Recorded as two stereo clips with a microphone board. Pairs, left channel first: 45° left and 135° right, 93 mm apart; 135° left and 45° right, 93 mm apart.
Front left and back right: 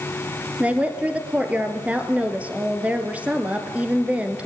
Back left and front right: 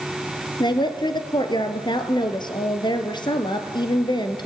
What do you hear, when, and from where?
0.6 s a woman speaking: 150° left, 1.8 m